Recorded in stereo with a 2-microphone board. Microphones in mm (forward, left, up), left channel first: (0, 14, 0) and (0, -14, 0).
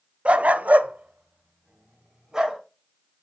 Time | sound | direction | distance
0.2 | a dog barking | 50° right (ahead or behind) | 0.6 m